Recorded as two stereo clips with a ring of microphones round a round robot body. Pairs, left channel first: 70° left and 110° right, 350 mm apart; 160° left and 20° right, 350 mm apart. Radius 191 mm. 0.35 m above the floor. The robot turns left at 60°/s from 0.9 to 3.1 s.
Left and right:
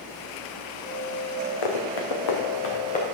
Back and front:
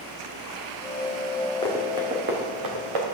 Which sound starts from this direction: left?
Running footsteps, at 1.6 s.